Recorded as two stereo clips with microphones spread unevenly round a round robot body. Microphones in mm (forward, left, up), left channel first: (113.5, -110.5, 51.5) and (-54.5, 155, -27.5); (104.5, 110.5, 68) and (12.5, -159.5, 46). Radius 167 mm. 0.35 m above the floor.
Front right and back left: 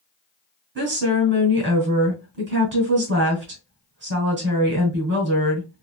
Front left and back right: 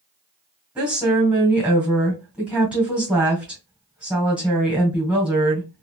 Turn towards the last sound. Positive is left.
turn(degrees=165)